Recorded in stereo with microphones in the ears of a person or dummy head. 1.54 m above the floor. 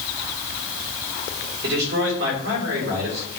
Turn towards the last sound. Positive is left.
turn(degrees=-60)  # may be behind; listen again after turning